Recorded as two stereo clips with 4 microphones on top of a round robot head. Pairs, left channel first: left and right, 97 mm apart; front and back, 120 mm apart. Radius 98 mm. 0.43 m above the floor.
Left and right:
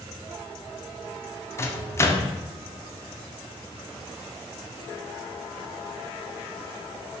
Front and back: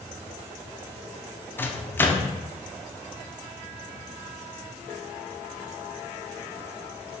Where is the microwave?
60° left, 0.5 m.